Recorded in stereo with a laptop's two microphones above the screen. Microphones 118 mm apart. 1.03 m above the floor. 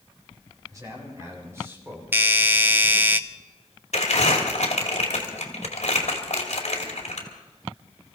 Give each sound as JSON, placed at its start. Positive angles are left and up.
{"t": 0.7, "sound": "a man speaking", "side_deg": -30, "distance_m": 4.0}
{"t": 2.1, "sound": "a doorbell", "side_deg": -15, "distance_m": 0.7}
{"t": 3.9, "sound": "crumpling", "side_deg": 75, "distance_m": 2.5}